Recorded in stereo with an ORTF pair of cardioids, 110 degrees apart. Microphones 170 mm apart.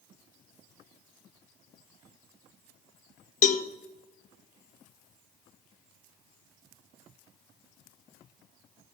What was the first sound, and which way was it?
A cowbell, 55° left.